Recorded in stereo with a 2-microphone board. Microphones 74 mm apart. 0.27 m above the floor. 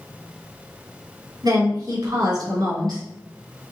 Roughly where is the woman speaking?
Right.